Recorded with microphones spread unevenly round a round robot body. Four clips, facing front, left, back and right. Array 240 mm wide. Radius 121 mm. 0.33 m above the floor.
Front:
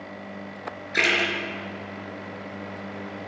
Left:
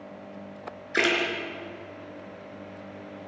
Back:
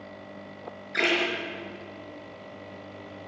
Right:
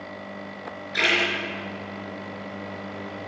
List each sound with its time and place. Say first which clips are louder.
0.9 s a splash: left 1 dB, front 1 dB; 70° left, 4.5 m